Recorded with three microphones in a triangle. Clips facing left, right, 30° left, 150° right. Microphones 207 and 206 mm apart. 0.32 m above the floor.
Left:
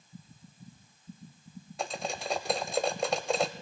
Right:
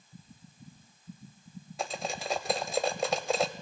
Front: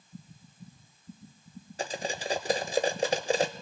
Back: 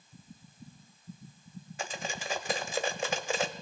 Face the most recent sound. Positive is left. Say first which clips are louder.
# even, front 5 dB
turn(degrees=0)